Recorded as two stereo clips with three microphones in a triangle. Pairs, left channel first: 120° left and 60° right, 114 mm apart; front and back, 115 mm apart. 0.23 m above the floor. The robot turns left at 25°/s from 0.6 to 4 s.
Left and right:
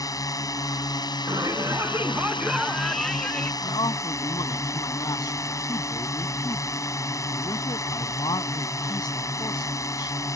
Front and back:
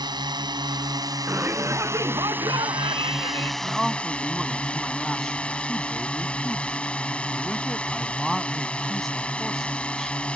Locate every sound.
0.0 s a drone: 160° left; by 10.4 s 75° left
1.3 s a shout: 110° right; by 3.5 s 165° right
3.6 s a man speaking: 100° left; by 10.1 s 90° left